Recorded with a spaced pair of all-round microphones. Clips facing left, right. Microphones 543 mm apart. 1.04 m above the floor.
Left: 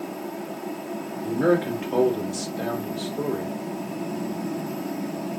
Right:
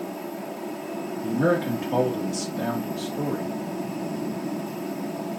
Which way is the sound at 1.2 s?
60° right (ahead or behind).